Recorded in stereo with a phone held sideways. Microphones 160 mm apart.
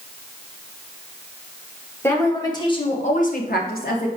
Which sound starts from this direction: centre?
A woman speaking, at 2.0 s.